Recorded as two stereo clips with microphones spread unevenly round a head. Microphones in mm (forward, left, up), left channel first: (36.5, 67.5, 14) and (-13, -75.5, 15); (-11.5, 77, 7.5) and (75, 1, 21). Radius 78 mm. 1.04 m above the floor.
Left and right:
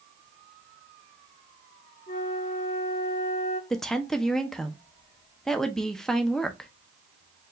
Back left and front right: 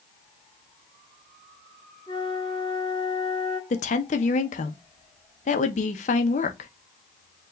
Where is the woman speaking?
155° left, 0.7 m.